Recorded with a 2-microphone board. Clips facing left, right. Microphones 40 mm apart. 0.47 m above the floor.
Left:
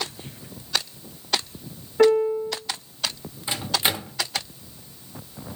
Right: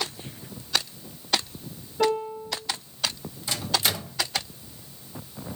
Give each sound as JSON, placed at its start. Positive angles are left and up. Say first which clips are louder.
{"t": 2.0, "sound": "a piano", "louder": "left 7 dB", "side_deg": 75, "distance_m": 2.0}
{"t": 3.5, "sound": "a microwave", "louder": "left 2 dB", "side_deg": 25, "distance_m": 1.2}